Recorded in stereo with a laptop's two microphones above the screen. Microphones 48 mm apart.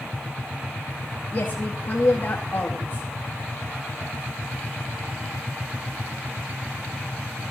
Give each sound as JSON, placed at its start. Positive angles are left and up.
{"t": 1.3, "sound": "a woman speaking", "side_deg": 60, "distance_m": 2.0}